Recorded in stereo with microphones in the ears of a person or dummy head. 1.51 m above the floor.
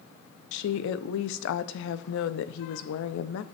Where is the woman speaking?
70° left (ahead or behind), 0.5 m.